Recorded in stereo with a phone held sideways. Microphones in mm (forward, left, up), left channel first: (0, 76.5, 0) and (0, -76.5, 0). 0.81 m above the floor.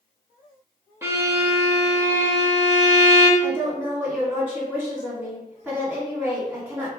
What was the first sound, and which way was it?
A violin, 15° right (ahead or behind).